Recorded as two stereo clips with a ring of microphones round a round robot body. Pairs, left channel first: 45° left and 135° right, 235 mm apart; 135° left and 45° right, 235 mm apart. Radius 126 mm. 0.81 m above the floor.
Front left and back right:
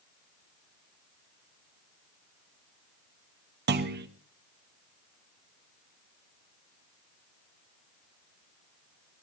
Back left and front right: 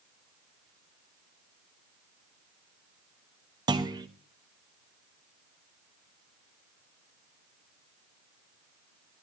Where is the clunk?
110° right, 1.3 m.